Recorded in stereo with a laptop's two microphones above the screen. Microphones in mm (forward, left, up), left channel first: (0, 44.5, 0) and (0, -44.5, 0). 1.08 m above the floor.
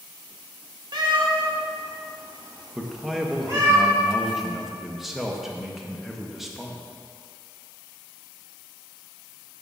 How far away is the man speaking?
About 1.0 m.